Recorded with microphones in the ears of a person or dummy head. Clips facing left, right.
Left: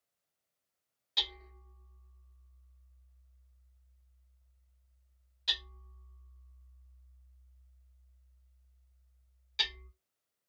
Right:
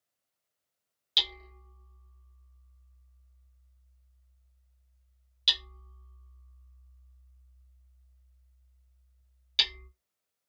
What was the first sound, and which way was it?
Hammering, 45° right (ahead or behind).